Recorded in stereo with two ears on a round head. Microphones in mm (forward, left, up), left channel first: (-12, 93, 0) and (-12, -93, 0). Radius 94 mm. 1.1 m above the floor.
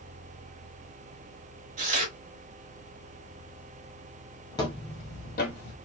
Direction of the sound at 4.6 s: 20° left (ahead or behind).